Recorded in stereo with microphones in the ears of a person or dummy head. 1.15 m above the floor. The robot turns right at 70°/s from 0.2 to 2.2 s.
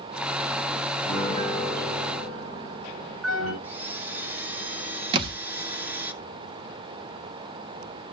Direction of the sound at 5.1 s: 30° right (ahead or behind).